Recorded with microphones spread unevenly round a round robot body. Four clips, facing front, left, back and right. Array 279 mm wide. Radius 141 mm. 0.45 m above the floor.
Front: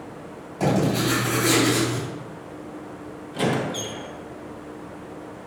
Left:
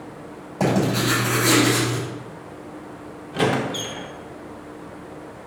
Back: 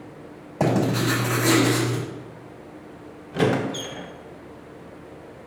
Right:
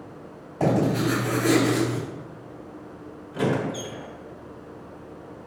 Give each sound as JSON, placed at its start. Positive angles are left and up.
{"t": 0.6, "sound": "writing", "azimuth_deg": 160, "distance_m": 3.0}
{"t": 3.3, "sound": "a squeak", "azimuth_deg": 160, "distance_m": 0.8}